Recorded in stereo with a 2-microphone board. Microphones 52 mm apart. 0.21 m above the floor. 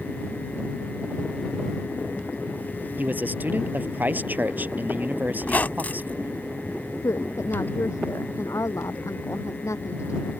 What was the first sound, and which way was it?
A man speaking, 35° right (ahead or behind).